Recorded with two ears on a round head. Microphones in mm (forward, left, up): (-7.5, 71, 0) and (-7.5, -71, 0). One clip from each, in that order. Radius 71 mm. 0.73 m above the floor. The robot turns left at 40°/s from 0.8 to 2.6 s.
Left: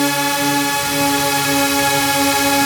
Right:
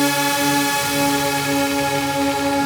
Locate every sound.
0.0 s a drone: 170° left; by 2.7 s 100° left